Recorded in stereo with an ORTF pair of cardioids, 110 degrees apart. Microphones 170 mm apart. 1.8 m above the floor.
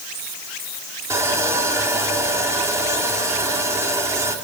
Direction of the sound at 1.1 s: 15° right.